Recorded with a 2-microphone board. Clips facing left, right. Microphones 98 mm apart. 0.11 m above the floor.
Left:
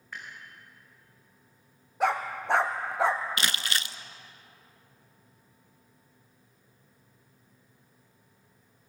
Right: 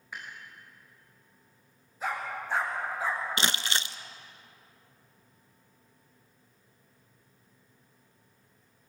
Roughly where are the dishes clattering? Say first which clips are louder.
Even; centre.